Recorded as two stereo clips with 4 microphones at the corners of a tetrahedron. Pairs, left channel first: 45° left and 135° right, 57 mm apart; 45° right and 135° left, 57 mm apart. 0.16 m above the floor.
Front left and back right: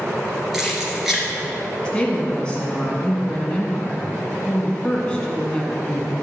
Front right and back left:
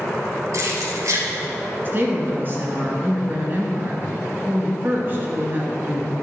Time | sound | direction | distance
0.5 | keys jangling | 140° left | 2.5 m
1.9 | a woman speaking | 110° left | 2 m